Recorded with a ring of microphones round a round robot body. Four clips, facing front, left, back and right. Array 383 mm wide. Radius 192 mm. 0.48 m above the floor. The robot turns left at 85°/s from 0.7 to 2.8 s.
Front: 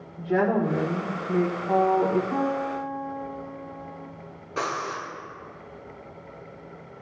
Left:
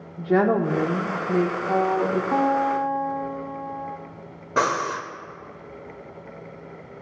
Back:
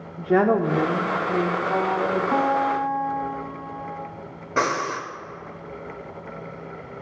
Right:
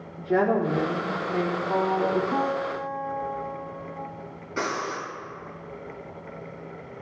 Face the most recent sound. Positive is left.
turn(degrees=125)